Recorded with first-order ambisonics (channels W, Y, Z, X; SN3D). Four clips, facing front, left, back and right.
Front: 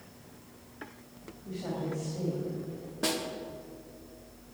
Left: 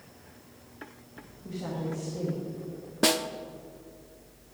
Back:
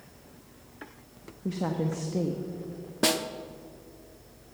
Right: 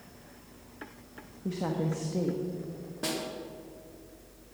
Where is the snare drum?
125° left, 0.6 m.